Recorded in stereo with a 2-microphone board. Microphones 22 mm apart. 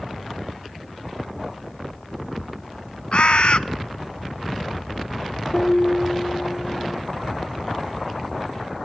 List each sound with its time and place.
3.1 s a bird: 55° left (ahead or behind), 0.7 m
5.5 s a piano: 25° left (ahead or behind), 8.5 m